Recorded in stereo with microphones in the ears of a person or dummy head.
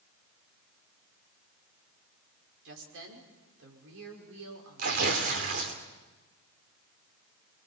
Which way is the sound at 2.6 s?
75° right (ahead or behind).